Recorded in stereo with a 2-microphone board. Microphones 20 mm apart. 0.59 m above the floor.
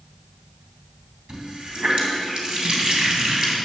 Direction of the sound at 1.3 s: 45° right (ahead or behind).